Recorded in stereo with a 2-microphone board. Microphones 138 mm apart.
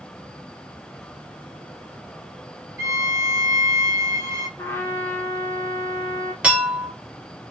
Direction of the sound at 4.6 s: 15° left (ahead or behind).